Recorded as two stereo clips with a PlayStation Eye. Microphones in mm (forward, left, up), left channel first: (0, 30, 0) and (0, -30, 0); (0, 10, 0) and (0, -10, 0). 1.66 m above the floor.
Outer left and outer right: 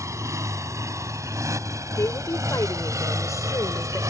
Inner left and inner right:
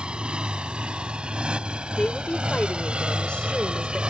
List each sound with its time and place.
0.0 s a motorcycle: 60° right (ahead or behind); by 4.1 s 65° right (ahead or behind)
2.0 s a woman speaking: 65° left (ahead or behind)